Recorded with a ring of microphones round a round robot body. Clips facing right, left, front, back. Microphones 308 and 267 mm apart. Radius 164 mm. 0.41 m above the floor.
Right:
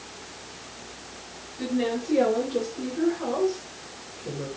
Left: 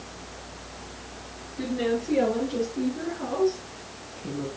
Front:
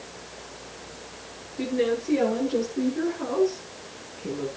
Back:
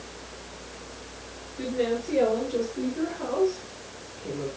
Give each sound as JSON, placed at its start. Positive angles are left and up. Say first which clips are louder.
{"t": 1.6, "sound": "a woman speaking", "louder": "even, front 2 dB", "azimuth_deg": 65, "distance_m": 9.0}